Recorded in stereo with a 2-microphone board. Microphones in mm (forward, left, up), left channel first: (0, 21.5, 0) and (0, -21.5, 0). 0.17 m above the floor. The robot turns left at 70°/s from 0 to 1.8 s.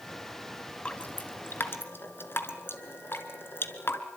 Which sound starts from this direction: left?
Dripping, at 0.8 s.